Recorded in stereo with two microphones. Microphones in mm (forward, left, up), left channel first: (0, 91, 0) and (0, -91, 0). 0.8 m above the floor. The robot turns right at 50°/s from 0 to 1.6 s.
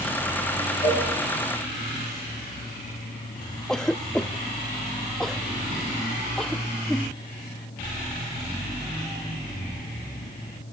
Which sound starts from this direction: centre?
A cough, at 3.7 s.